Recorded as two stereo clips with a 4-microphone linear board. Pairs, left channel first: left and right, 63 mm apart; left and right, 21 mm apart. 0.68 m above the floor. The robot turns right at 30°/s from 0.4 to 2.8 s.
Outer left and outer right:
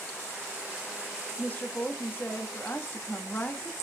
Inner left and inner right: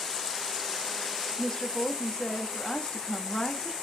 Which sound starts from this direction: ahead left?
A woman speaking, at 1.4 s.